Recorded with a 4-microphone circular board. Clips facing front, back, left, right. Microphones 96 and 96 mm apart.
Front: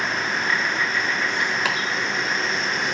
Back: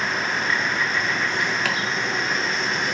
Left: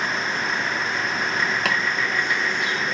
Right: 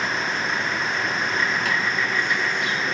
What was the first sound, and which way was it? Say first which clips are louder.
Chopping: front 1 dB, left 1 dB; 75° left.